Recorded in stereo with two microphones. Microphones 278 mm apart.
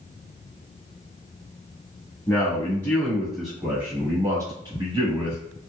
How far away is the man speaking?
About 1.3 m.